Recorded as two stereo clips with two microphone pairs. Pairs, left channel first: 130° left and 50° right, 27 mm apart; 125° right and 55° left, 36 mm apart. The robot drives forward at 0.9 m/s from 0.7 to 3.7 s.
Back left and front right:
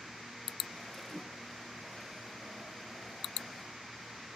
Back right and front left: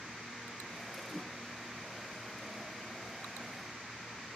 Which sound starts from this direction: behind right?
A whoosh, at 1.1 s.